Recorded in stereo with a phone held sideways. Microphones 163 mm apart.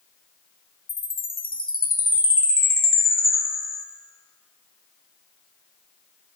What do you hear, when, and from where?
0.9 s a chime: 65° left (ahead or behind), 1.2 m